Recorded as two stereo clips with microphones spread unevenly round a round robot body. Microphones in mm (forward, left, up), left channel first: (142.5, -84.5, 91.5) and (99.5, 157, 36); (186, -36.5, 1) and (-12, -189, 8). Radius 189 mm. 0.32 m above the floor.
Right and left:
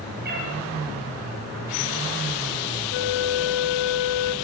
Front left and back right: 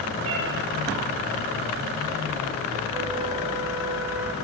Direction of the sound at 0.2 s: 160° left.